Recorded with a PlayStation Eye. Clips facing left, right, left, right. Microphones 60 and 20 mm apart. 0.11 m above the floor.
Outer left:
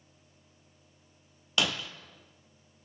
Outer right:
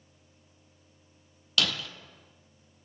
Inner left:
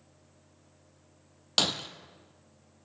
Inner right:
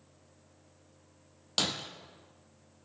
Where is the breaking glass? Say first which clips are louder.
Even, inner left 4 dB; 20° left (ahead or behind), 1.1 m.